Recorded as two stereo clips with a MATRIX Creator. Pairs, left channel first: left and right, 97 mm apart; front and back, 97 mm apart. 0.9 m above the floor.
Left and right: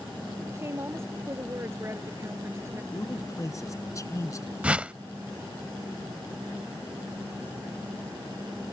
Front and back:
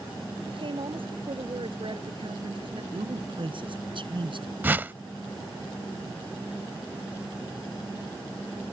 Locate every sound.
0.5 s a woman speaking: 150° right
2.9 s a man speaking: 145° left
4.6 s a whoosh: 150° right